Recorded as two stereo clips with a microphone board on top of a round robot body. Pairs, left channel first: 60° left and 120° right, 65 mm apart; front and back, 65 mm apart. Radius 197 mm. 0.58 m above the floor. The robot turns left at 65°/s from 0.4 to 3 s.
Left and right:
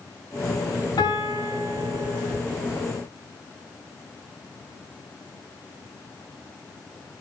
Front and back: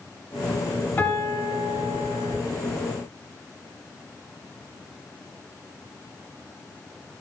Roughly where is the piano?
Ahead left.